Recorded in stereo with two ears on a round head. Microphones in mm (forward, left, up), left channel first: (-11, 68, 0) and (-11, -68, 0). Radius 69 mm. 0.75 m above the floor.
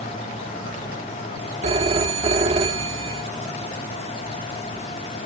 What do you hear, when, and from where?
1.6 s a phone ringing: 40° right (ahead or behind)